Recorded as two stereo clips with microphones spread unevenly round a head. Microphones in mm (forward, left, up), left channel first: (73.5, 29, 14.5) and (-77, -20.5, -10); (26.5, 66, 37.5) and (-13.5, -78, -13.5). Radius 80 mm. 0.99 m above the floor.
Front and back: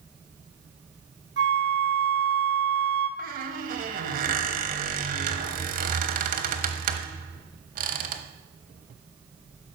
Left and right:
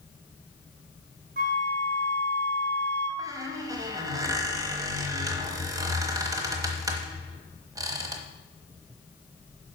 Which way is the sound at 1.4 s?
135° right.